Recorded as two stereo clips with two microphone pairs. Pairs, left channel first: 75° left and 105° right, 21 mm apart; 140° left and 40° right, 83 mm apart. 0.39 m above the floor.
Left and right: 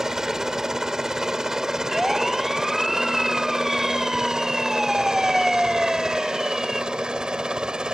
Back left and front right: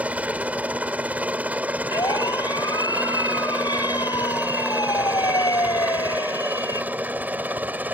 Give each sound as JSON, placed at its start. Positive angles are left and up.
{"t": 0.0, "sound": "a helicopter", "azimuth_deg": -80}
{"t": 1.9, "sound": "a siren", "azimuth_deg": 170}